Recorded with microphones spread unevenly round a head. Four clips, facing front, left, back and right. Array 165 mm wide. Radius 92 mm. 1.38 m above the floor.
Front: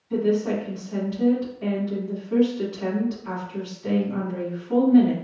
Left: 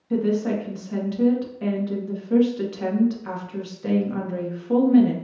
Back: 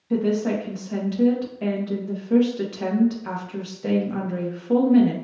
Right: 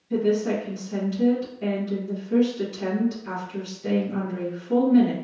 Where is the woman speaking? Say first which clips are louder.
Even, even; 150° left, 1.2 m.